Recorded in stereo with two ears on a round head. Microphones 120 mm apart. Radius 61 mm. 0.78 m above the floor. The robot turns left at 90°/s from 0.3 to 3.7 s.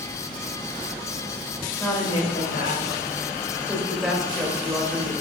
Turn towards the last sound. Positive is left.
turn(degrees=5)